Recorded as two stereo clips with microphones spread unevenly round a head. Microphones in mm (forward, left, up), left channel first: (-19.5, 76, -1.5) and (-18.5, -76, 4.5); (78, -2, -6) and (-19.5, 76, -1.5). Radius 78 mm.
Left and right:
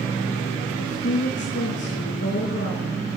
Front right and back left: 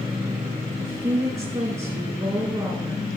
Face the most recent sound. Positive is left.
turn(degrees=85)